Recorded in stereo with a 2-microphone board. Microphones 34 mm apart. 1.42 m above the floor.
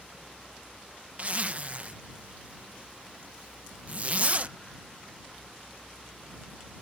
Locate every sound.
1.2 s a zipper: 45° right (ahead or behind)